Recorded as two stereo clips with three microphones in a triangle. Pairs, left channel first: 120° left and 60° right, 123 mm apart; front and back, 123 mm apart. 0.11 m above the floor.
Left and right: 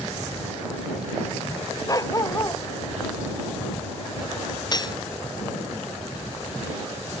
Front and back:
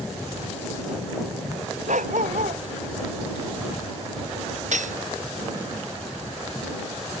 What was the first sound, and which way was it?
A dog barking, straight behind.